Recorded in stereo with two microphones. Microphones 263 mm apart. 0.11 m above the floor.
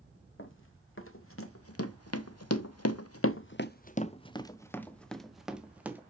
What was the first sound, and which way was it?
Running footsteps, 50° left (ahead or behind).